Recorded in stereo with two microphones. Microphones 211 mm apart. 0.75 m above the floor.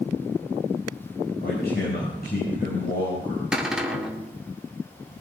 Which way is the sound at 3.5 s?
5° right (ahead or behind).